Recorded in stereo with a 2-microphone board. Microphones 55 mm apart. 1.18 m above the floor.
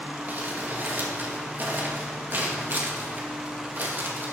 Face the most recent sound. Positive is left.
turn(degrees=-40)  # may be behind; listen again after turning